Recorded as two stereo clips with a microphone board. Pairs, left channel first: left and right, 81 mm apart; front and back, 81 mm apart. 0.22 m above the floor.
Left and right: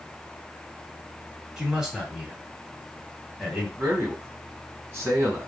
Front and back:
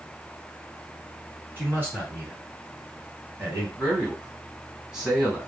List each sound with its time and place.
1.6 s a man speaking: 165° right, 1.3 m
3.8 s a man speaking: 105° right, 1.9 m